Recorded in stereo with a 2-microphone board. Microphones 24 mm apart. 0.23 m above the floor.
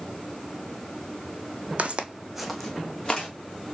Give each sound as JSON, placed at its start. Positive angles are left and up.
{"t": 1.8, "sound": "footsteps", "side_deg": -60, "distance_m": 0.5}